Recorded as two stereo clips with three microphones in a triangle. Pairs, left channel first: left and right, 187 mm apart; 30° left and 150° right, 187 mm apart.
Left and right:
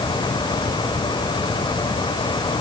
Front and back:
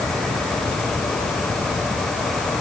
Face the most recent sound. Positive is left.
No sound to turn to.